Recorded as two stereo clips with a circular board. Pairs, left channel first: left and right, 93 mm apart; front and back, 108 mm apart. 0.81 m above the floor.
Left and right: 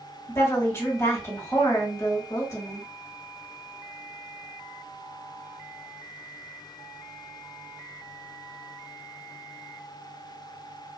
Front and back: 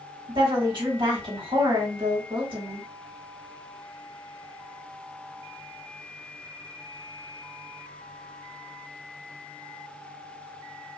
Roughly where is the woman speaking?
Behind left.